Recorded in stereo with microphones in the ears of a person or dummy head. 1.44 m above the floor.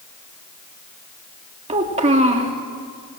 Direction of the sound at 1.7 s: 25° right (ahead or behind).